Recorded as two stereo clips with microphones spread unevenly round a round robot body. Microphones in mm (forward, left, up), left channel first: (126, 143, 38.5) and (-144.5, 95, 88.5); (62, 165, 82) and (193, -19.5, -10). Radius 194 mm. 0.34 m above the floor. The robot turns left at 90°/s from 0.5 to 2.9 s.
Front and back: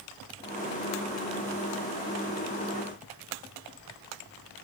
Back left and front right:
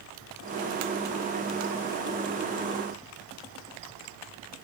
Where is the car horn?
No car horn in this recording.